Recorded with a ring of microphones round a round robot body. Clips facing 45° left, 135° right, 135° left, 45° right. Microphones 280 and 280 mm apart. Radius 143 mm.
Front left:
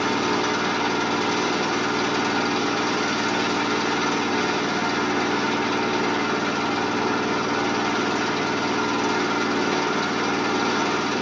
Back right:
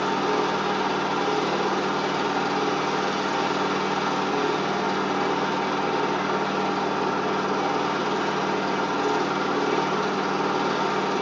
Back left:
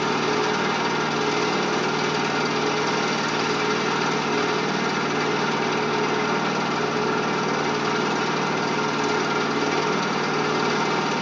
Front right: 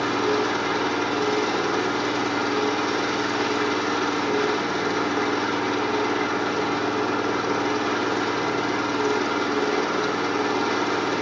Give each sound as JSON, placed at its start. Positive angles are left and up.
{"t": 0.0, "sound": "an engine running", "azimuth_deg": 95, "distance_m": 8.0}